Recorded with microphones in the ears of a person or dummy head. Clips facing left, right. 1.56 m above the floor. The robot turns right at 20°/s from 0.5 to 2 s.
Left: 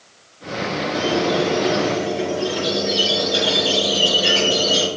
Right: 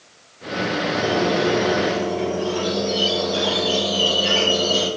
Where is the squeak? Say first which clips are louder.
Left 2 dB; 35° left (ahead or behind), 2 m; by 4.9 s 20° left (ahead or behind), 2 m.